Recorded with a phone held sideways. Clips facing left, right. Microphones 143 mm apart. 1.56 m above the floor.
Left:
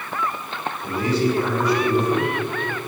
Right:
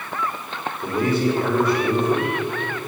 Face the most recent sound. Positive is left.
turn(degrees=-50)  # may be behind; listen again after turning